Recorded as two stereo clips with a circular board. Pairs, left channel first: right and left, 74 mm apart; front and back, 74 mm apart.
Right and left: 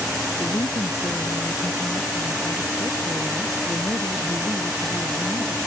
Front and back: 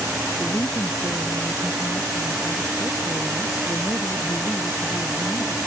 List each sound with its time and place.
0.4 s a woman speaking: 45° right